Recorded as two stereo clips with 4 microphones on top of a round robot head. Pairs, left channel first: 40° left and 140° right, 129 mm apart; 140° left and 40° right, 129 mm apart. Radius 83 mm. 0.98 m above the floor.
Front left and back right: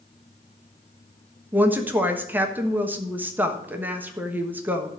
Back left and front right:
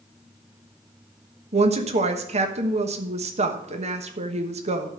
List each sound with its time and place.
1.5 s a woman speaking: 65° right, 1.2 m